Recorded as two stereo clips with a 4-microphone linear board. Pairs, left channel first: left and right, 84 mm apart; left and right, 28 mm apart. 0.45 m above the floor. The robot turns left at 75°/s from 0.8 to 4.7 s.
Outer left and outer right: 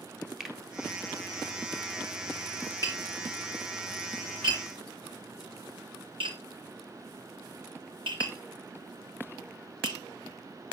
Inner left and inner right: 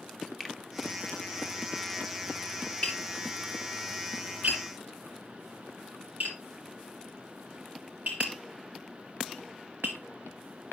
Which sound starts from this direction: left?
Tapping, at 2.8 s.